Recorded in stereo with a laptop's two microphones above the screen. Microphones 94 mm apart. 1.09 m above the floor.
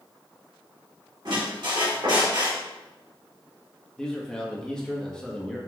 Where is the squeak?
55° right (ahead or behind), 1.7 m.